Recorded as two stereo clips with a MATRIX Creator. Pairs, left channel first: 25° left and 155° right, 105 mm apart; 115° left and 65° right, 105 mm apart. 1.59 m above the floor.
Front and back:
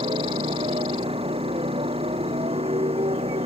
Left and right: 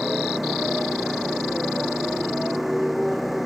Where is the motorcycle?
155° right.